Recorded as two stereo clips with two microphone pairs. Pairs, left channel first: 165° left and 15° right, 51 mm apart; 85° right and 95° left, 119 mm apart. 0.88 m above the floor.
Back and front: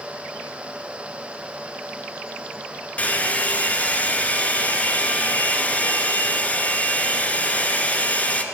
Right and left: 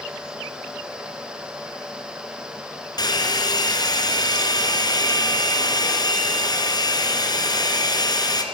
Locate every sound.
3.0 s a hair dryer: 140° right, 2.0 m